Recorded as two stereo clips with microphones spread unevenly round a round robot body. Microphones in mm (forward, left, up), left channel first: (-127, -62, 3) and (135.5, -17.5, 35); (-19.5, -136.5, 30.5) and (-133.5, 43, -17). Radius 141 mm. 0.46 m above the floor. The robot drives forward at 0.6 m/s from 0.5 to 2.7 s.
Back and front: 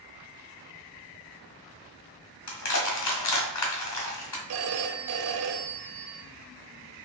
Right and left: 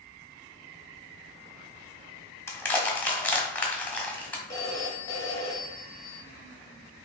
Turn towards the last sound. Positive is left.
turn(degrees=30)